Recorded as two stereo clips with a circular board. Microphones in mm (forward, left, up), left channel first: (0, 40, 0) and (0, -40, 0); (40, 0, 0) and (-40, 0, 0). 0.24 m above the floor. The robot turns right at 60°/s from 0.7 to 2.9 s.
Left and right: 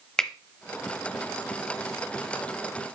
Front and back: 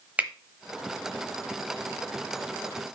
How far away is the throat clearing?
No throat clearing in this recording.